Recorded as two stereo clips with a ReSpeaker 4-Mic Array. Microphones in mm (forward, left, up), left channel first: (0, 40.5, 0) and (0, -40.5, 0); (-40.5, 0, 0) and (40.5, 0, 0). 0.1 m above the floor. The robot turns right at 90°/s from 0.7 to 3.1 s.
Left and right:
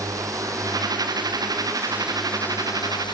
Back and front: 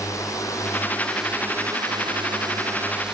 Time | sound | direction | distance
0.0 | a drone | 135° right | ?